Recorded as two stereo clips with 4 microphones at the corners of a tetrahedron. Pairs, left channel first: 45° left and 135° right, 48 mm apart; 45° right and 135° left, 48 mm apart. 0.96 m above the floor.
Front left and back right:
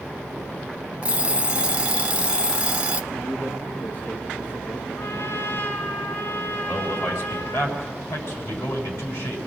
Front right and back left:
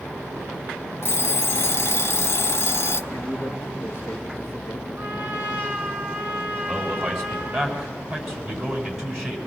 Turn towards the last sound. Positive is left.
turn(degrees=60)